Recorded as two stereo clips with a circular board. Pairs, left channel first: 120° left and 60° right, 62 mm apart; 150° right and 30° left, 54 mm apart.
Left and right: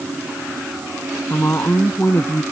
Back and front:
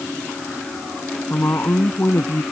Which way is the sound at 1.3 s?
170° left.